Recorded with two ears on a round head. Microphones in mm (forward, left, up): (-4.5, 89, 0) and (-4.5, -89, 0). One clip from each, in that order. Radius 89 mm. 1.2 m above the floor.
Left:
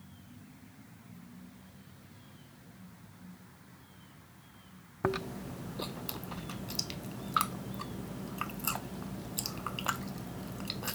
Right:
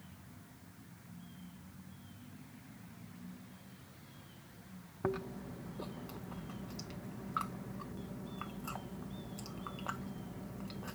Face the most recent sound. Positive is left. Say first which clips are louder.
# left 5 dB
turn(degrees=80)